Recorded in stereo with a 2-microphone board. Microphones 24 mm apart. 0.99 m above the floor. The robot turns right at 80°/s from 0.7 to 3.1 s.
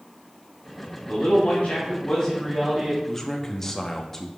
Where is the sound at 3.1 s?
10° left (ahead or behind), 1.0 m.